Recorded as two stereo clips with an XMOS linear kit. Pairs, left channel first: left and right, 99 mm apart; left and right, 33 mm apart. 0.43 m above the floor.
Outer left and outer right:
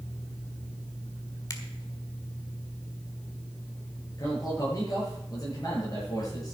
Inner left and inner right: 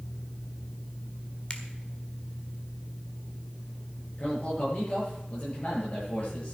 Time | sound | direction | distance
1.5 | a finger snap | 35° left (ahead or behind) | 1.5 m
4.2 | a man speaking | 35° left (ahead or behind) | 8 m